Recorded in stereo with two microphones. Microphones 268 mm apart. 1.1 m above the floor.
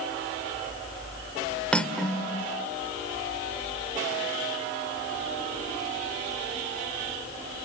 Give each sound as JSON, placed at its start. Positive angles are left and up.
{"t": 1.7, "sound": "cutlery clinking", "side_deg": 5, "distance_m": 1.8}